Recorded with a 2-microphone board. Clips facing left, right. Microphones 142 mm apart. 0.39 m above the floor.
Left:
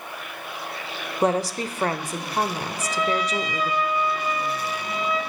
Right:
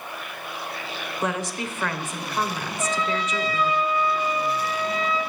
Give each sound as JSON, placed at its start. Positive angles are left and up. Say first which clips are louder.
{"t": 1.2, "sound": "a woman speaking", "louder": "left 6 dB", "side_deg": 35, "distance_m": 1.1}
{"t": 2.8, "sound": "a trumpet", "louder": "left 1 dB", "side_deg": -25, "distance_m": 8.0}